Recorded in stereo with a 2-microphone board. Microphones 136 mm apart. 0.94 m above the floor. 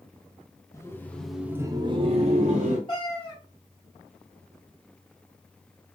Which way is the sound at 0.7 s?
20° left (ahead or behind).